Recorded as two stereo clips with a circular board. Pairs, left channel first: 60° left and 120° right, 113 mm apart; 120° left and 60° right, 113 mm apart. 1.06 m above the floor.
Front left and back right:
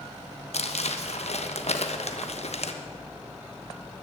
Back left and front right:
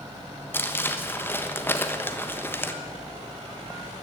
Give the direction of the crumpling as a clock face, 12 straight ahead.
10 o'clock.